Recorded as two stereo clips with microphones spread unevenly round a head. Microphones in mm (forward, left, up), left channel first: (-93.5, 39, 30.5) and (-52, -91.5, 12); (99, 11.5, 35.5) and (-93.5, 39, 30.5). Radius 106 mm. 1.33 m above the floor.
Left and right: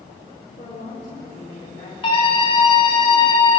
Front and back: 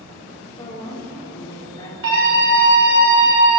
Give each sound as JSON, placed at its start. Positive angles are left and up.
{"t": 0.6, "sound": "a woman speaking", "azimuth_deg": 55, "distance_m": 3.0}
{"t": 2.0, "sound": "a scream", "azimuth_deg": 155, "distance_m": 6.5}